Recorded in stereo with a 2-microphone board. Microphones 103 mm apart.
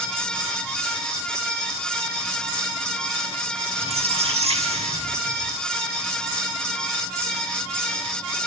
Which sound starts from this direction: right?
A squeak, at 3.8 s.